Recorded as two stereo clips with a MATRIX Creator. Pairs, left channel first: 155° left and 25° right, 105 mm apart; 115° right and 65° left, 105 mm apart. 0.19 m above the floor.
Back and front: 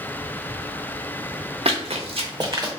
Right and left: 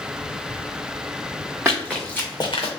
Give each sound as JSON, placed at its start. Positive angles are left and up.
{"t": 1.6, "sound": "running footsteps", "azimuth_deg": 0, "distance_m": 0.9}